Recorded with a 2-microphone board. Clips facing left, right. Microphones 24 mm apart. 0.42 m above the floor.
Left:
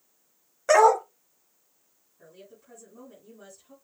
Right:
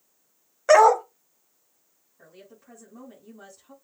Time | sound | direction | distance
0.7 | a dog barking | 10° right (ahead or behind) | 0.5 m
2.2 | a woman speaking | 40° right (ahead or behind) | 3 m